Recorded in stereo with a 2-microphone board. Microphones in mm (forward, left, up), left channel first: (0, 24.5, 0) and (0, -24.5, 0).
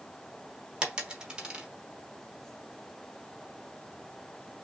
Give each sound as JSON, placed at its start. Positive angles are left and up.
{"t": 0.8, "sound": "a dropped coin", "side_deg": -15, "distance_m": 1.0}